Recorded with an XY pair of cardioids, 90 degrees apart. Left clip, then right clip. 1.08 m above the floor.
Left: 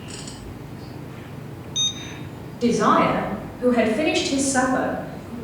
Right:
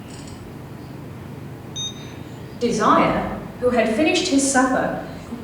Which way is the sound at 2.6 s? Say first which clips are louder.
Right 2 dB; 5° right.